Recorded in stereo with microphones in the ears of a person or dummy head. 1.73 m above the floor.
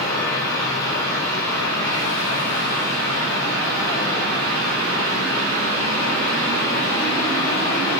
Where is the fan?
5° left (ahead or behind), 1.3 m.